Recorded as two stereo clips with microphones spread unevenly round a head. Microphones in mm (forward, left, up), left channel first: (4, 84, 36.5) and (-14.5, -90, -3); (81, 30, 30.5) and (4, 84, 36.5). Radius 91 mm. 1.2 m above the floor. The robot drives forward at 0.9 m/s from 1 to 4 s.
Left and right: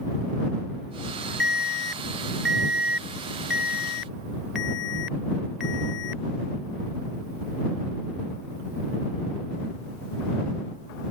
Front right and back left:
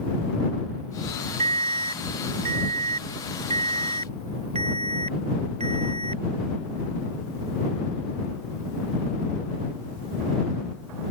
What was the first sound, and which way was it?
An alarm, straight behind.